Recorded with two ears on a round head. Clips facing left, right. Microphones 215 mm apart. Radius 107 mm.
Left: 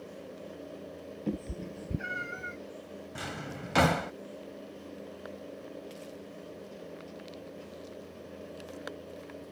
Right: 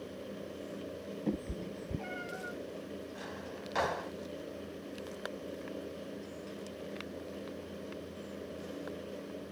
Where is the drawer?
75° left (ahead or behind).